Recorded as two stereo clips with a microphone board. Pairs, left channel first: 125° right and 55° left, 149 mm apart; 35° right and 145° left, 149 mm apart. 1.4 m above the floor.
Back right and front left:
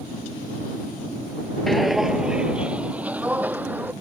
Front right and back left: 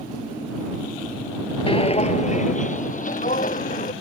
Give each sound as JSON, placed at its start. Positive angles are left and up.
{"t": 1.7, "sound": "footsteps", "azimuth_deg": -35}